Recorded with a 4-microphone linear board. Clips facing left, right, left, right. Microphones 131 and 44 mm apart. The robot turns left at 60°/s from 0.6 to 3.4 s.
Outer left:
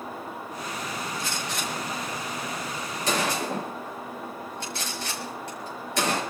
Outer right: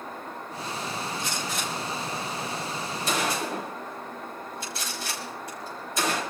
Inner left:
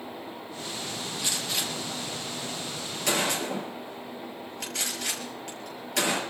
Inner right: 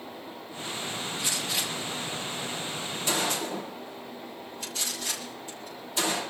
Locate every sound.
1.2 s a gunshot: 25° right (ahead or behind), 6 m; by 6.2 s 70° left (ahead or behind), 6 m